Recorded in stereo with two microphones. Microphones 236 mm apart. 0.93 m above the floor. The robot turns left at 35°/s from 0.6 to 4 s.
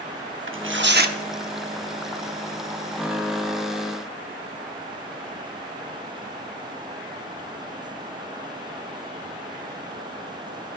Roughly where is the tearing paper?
Right.